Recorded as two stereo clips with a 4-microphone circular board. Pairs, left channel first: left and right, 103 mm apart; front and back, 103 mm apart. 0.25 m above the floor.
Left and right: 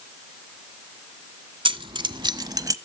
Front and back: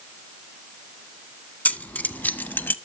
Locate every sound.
1.6 s keys jangling: 75° right, 1.8 m; by 2.8 s 60° right, 1.1 m